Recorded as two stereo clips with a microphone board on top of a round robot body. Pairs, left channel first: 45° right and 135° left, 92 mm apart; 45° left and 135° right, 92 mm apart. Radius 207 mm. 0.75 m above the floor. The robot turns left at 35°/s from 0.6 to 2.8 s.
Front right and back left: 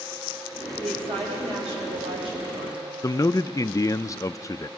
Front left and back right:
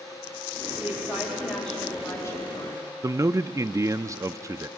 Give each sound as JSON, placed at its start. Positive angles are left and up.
{"t": 0.8, "sound": "a woman speaking", "azimuth_deg": 155, "distance_m": 5.5}
{"t": 3.0, "sound": "a man speaking", "azimuth_deg": -90, "distance_m": 0.6}